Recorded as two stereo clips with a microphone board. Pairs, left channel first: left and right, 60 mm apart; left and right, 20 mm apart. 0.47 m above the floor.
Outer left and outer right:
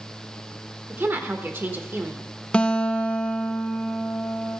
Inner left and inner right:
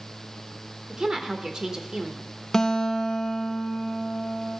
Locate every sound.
0.9 s a woman speaking: 35° right (ahead or behind), 1.2 m
2.5 s a guitar: 20° left (ahead or behind), 0.6 m